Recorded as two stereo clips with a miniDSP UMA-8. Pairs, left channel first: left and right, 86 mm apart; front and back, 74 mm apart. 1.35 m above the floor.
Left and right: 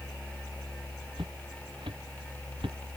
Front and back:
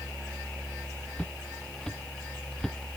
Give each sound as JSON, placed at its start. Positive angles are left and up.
{"t": 1.2, "sound": "footsteps", "azimuth_deg": -75}